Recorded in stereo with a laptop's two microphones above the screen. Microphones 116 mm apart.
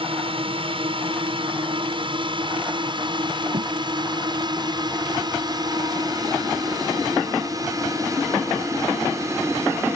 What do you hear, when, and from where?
0.0 s a drone: 50° right (ahead or behind); by 10.0 s 25° right (ahead or behind)
3.5 s a thud: 85° right